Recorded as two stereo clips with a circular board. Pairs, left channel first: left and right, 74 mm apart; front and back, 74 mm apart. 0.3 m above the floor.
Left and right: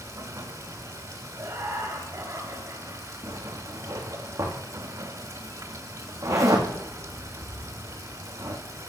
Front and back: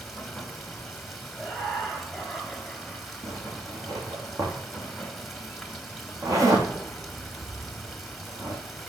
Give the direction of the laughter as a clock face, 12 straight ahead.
3 o'clock.